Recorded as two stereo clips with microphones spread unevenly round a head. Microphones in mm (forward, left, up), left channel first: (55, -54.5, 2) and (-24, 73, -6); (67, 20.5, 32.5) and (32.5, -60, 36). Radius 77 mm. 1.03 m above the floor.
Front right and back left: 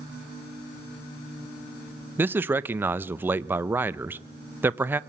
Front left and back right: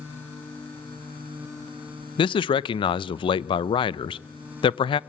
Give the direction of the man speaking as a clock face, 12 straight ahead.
10 o'clock.